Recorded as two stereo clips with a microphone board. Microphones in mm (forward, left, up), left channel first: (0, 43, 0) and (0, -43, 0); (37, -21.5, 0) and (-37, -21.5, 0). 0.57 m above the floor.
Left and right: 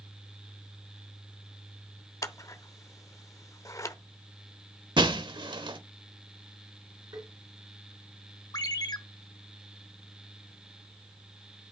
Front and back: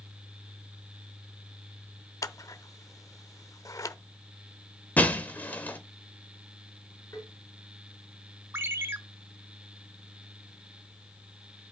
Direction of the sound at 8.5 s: 130° left.